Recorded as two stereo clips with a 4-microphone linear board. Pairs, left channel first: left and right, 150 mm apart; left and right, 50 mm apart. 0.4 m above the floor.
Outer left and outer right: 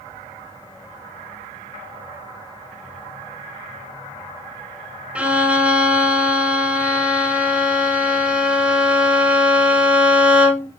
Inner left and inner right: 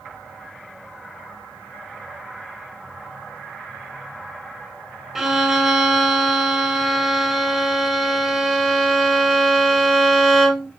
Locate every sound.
5.2 s a violin: 10° right (ahead or behind), 0.7 m